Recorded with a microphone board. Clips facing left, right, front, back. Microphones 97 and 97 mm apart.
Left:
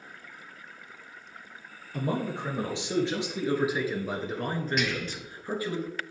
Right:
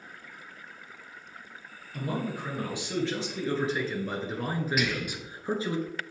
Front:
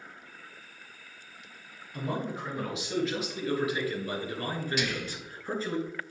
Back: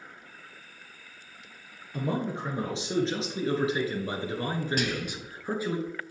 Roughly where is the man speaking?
Behind left.